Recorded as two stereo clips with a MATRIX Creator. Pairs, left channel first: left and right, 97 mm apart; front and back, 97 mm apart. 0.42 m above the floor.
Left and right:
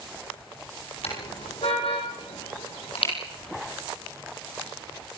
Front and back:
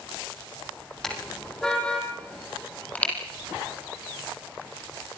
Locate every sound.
1.0 s a car horn: 85° left, 7 m; by 3.1 s 75° left, 7 m